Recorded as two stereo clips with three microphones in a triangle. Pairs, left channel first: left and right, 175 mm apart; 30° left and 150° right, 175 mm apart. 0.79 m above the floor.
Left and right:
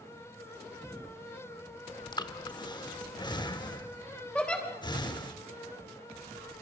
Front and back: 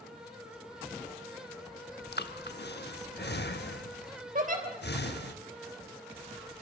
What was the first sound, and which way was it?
Breathing, 30° left.